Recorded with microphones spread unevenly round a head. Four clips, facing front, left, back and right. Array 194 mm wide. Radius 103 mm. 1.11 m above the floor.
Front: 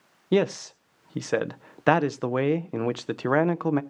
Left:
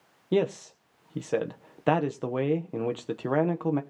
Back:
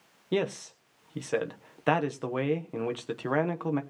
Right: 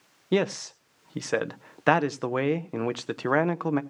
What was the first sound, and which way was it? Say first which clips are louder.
A man speaking: even, front 6 dB; 5° left.